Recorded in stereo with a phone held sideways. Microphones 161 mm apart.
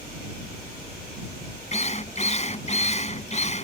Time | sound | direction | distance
1.7 | a drill | 40° left (ahead or behind) | ?